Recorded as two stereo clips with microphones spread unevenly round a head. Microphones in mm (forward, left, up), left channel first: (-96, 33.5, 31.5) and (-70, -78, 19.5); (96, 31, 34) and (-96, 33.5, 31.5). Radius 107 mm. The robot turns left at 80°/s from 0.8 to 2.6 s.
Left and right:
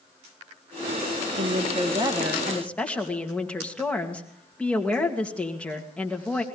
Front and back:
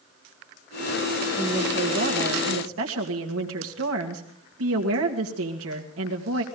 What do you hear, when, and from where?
1.4 s a woman speaking: 75° right, 2 m; by 6.4 s 175° right, 2 m